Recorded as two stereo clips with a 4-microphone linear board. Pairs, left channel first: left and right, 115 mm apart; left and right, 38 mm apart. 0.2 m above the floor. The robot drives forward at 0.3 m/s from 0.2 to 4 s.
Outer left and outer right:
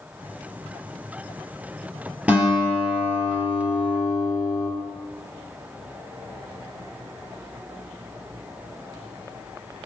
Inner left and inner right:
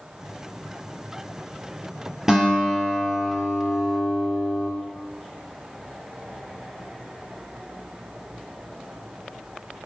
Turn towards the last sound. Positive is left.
turn(degrees=-10)  # may be behind; listen again after turning